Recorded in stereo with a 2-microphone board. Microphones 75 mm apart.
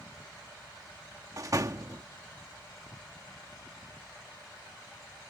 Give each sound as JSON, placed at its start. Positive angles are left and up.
{"t": 1.4, "sound": "a door slam", "side_deg": -45}